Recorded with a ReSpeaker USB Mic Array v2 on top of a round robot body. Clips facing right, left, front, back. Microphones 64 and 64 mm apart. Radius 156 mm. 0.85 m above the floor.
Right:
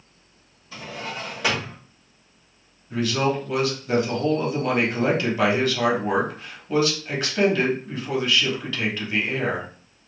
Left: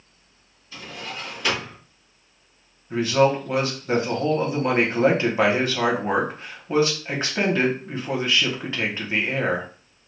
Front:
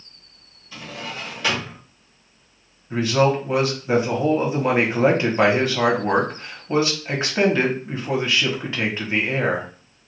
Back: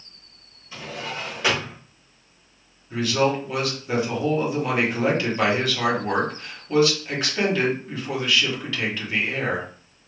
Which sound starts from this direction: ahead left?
A man speaking, at 2.9 s.